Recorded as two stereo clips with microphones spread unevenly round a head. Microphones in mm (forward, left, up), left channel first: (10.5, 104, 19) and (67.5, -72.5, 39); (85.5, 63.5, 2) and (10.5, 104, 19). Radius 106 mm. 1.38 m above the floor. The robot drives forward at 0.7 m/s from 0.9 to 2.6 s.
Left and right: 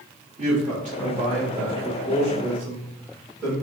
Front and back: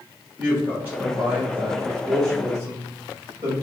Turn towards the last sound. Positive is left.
turn(degrees=-155)